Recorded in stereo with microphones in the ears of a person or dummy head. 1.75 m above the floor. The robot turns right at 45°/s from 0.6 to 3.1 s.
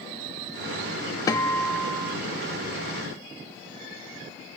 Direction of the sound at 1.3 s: 160° left.